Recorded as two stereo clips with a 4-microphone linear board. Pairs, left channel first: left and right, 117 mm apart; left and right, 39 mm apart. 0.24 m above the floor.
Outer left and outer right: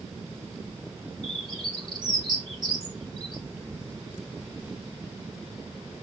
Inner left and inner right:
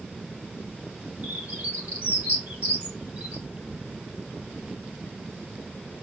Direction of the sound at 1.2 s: 40° right (ahead or behind).